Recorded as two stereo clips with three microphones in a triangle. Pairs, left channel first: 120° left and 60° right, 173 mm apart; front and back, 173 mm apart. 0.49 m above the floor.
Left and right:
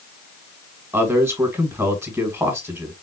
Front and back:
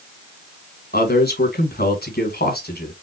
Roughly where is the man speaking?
Ahead.